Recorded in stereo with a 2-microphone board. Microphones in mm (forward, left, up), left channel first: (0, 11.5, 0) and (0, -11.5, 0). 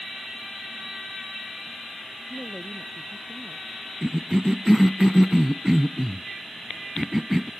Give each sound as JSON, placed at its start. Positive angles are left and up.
{"t": 2.3, "sound": "a woman speaking", "side_deg": -30}
{"t": 4.0, "sound": "a cough", "side_deg": -20}